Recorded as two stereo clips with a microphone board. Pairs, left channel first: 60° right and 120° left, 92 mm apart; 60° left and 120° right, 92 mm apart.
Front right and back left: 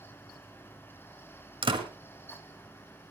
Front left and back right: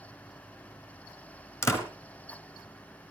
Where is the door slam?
120° left, 2 m.